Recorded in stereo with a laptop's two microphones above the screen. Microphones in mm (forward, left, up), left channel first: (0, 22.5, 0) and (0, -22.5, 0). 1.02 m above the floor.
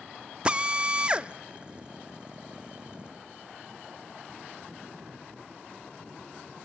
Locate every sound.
0.5 s a drill: 20° right (ahead or behind), 0.7 m